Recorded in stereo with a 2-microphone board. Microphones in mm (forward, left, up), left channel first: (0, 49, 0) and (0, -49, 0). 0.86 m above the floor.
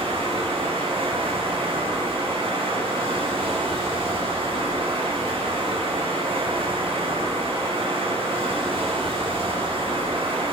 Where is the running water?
75° right (ahead or behind), 5.5 m.